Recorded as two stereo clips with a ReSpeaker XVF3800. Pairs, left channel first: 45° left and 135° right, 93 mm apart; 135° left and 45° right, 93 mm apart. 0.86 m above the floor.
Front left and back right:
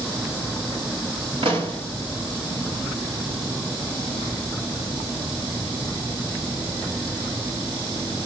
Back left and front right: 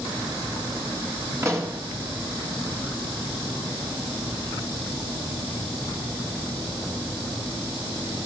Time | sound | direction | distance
1.4 | a pop | 105° right | 1.3 m